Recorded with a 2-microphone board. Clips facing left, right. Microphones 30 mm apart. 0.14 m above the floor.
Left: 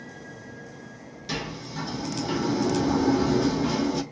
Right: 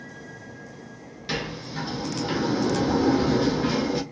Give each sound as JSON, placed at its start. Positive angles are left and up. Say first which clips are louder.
{"t": 1.3, "sound": "a sliding door", "louder": "right 2 dB", "side_deg": -25, "distance_m": 1.0}